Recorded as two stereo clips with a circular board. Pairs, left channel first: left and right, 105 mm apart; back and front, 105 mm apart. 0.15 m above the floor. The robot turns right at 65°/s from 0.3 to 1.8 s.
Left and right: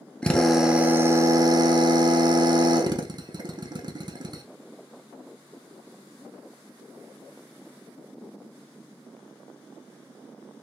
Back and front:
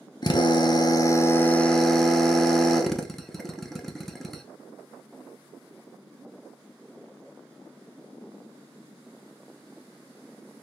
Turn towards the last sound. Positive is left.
turn(degrees=-95)